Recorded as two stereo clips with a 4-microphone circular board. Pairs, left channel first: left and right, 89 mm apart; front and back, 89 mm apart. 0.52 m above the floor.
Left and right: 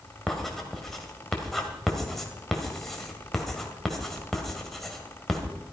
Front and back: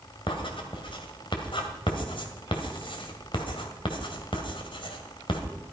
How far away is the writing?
About 1.9 m.